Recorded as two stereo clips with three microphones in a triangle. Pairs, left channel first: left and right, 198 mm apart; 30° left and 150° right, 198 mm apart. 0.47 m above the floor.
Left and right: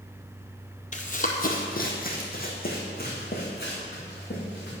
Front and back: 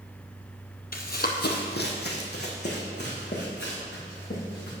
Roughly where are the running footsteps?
Ahead left.